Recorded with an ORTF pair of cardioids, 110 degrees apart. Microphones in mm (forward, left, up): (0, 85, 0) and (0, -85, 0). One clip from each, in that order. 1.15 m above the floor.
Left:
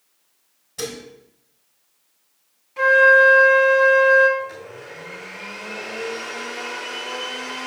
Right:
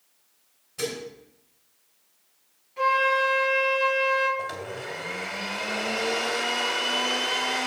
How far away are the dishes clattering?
About 3 m.